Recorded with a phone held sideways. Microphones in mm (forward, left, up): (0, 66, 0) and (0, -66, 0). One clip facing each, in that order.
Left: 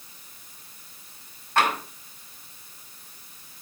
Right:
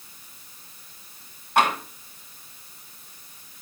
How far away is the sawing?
I don't hear sawing.